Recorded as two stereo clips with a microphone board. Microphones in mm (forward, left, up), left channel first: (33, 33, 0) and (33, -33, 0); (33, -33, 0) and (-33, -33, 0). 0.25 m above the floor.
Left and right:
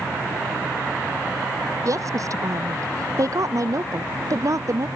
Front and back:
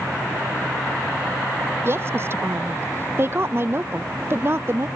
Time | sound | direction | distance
1.9 | a woman speaking | 125° right | ?